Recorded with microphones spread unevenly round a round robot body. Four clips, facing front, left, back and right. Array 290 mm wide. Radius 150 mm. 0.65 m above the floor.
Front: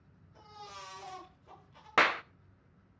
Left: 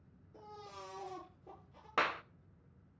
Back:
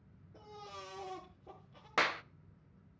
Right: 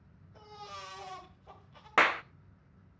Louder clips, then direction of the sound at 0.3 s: Right 4 dB, front 1 dB; 125° left.